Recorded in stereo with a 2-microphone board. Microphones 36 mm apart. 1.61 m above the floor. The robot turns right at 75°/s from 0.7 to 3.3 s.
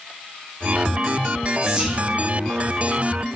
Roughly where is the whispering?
Centre.